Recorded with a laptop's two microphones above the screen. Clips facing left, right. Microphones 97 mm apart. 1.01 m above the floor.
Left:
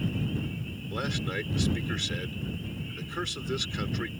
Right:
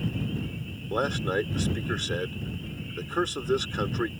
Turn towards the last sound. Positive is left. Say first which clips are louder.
# right 7 dB
turn(degrees=-40)  # may be behind; listen again after turning